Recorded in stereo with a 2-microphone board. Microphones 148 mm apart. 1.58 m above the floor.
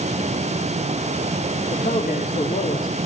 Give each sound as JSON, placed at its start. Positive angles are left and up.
{"t": 1.7, "sound": "a man speaking", "side_deg": 75, "distance_m": 5.0}